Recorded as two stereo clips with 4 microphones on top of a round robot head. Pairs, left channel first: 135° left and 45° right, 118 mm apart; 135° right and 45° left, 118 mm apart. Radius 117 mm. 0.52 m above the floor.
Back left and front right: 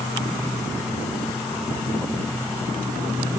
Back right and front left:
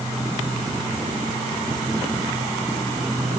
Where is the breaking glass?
I don't hear breaking glass.